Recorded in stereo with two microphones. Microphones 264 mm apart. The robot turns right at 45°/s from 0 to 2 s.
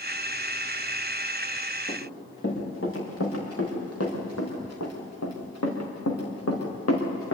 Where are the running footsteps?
40° left (ahead or behind), 8 m; by 7.4 s 50° left (ahead or behind), 4.5 m.